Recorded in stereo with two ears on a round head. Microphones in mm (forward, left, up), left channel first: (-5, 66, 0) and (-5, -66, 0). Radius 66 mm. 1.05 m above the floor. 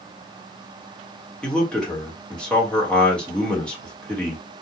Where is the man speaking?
5° left (ahead or behind), 1.1 m.